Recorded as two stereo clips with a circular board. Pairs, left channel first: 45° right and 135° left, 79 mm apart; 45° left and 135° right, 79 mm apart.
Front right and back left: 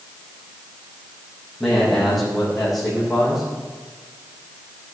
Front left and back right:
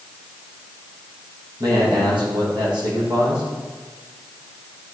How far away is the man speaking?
About 5 m.